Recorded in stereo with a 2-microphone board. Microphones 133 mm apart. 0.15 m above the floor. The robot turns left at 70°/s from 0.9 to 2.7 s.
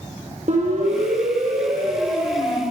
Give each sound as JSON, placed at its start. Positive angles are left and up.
{"t": 0.5, "sound": "a siren", "side_deg": -60, "distance_m": 7.0}